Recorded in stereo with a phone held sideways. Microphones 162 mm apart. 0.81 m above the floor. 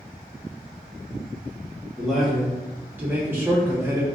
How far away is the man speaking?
About 1.0 m.